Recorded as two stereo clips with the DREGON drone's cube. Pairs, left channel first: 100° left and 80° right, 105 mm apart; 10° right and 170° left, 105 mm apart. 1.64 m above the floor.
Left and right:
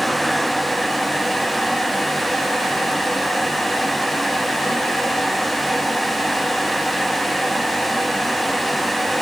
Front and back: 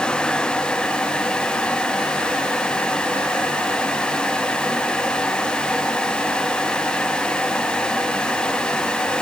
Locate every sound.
Only background noise.